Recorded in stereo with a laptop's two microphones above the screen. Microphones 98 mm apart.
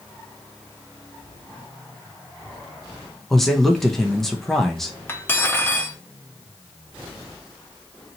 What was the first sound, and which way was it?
A man speaking, 5° left (ahead or behind).